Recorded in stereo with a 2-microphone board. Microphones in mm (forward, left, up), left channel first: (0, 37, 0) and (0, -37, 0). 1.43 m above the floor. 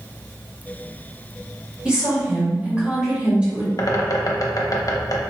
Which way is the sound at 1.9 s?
15° right (ahead or behind).